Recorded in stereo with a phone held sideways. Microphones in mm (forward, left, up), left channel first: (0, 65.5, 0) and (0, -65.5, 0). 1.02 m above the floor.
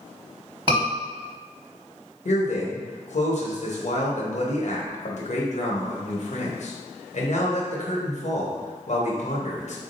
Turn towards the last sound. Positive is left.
turn(degrees=60)  # may be behind; listen again after turning